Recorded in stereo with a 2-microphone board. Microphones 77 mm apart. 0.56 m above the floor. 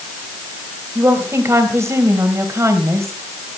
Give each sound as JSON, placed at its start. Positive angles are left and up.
{"t": 0.9, "sound": "a woman speaking", "side_deg": -35, "distance_m": 3.0}